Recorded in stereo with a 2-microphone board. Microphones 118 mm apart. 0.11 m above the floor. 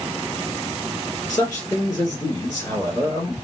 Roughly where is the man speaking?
Left.